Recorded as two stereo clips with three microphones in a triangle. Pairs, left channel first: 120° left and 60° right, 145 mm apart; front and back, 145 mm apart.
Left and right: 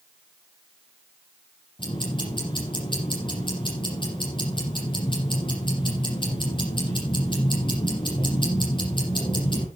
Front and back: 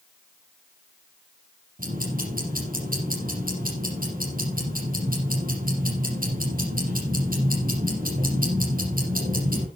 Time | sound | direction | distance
1.8 | ticking | 175° left | 6.5 m